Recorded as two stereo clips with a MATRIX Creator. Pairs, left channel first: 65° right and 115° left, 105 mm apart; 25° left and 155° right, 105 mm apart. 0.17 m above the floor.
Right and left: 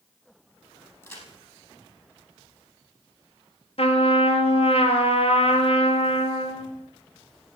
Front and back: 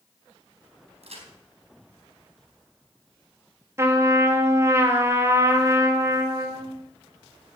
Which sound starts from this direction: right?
A trumpet, at 3.8 s.